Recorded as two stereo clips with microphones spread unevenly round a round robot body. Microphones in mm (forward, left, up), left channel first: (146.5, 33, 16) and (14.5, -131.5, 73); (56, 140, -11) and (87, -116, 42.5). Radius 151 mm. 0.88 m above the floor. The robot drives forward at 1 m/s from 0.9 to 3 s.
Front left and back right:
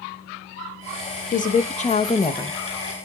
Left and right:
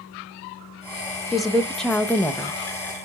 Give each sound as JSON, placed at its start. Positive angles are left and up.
{"t": 1.3, "sound": "a woman speaking", "azimuth_deg": 10, "distance_m": 1.6}